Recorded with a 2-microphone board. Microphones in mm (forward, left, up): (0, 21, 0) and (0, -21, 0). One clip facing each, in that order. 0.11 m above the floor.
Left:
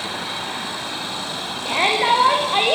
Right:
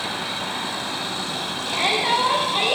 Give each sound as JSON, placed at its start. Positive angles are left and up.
{"t": 1.6, "sound": "a shout", "side_deg": 60, "distance_m": 9.0}